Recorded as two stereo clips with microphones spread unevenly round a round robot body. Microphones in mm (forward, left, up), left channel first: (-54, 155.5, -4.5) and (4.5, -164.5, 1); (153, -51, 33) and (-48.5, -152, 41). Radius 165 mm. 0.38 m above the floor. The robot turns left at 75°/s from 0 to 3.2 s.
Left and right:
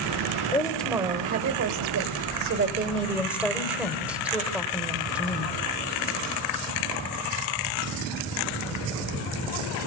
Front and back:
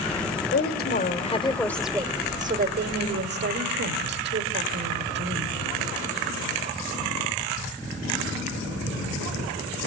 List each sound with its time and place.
0.5 s a woman speaking: 35° left, 1.6 m; by 5.6 s 165° right, 1.6 m